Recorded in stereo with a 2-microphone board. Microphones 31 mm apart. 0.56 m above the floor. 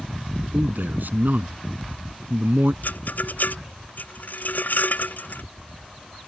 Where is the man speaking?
75° right (ahead or behind).